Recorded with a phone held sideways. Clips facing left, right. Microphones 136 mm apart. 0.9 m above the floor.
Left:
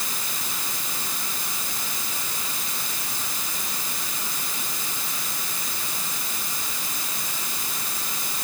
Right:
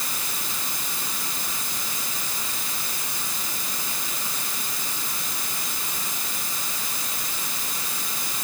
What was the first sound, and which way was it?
Only background noise.